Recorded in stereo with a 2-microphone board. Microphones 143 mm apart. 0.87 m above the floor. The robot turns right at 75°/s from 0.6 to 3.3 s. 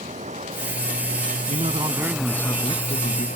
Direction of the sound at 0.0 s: 125° right.